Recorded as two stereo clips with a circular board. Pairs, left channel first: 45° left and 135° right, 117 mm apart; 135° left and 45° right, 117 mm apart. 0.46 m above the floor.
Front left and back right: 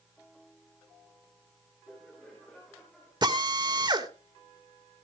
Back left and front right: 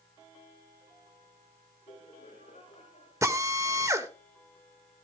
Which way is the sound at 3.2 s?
100° right.